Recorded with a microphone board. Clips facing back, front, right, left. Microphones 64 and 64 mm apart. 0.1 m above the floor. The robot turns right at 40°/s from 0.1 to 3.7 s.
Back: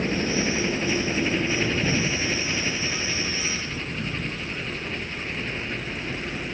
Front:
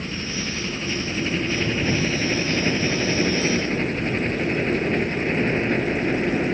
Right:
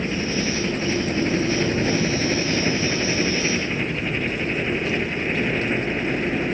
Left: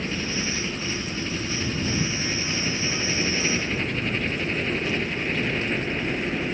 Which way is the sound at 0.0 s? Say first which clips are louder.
Back 5 dB, right 5 dB; 150° right.